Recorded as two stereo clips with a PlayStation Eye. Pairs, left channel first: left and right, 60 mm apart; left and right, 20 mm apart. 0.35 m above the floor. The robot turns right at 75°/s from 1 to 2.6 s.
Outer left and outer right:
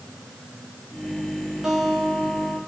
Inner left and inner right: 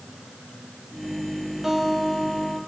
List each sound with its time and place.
1.6 s a guitar: 10° right, 9.5 m; by 2.6 s 60° left, 9.5 m